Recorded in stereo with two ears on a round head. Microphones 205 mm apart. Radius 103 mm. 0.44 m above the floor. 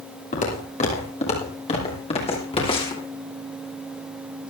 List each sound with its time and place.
0.3 s footsteps: 35° left (ahead or behind), 10 m; by 3.0 s 25° left (ahead or behind), 9 m